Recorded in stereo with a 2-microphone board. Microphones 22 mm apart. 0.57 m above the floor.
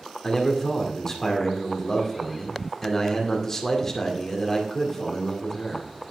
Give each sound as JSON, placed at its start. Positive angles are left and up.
{"t": 0.2, "sound": "a man speaking", "side_deg": 20, "distance_m": 2.0}